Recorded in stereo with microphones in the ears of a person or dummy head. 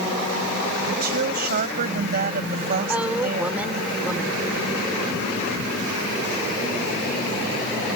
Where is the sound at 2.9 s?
10° right (ahead or behind).